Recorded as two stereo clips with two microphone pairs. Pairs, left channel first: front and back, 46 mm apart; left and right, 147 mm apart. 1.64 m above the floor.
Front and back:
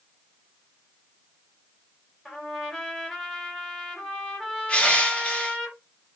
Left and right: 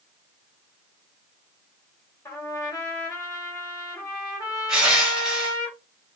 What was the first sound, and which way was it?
A trumpet, 105° left.